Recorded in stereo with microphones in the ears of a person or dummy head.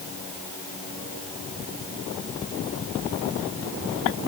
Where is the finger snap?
No finger snap in this recording.